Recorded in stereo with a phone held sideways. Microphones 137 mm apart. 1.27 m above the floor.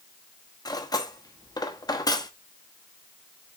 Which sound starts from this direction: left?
Cutlery clinking, at 0.7 s.